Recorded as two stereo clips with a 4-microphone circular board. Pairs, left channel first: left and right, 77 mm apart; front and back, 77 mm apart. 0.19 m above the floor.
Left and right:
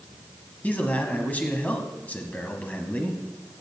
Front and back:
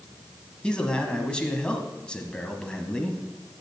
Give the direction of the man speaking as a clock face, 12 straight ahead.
10 o'clock.